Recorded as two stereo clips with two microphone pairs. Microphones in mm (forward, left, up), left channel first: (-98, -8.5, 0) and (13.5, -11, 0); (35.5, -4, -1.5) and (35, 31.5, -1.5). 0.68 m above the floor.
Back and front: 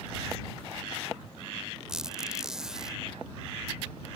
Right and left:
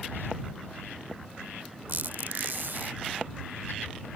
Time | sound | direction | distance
1.9 | a squeak | 85° left | ?